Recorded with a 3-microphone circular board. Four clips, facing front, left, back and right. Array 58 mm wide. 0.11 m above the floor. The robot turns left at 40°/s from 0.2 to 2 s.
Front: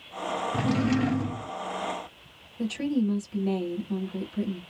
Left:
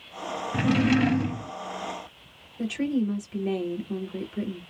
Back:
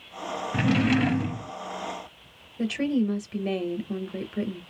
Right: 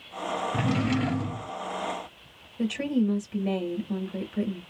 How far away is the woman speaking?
About 2.5 m.